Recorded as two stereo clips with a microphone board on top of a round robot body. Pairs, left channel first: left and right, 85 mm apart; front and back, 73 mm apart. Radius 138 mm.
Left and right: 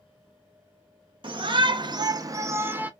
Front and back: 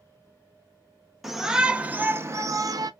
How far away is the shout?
About 0.9 m.